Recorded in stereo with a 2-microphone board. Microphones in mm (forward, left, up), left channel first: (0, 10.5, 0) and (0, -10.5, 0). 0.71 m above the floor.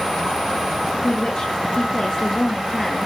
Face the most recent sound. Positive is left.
turn(degrees=30)  # may be behind; listen again after turning